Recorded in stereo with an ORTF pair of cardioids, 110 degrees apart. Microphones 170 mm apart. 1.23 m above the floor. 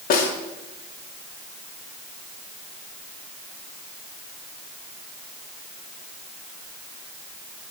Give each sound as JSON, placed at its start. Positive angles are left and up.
{"t": 0.1, "sound": "a snare drum", "azimuth_deg": 60, "distance_m": 3.0}